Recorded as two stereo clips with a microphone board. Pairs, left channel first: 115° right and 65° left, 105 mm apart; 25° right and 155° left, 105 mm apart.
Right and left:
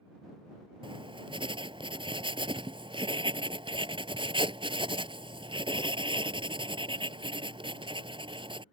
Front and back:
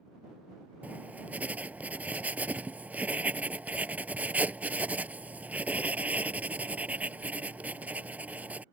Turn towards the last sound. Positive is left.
turn(degrees=85)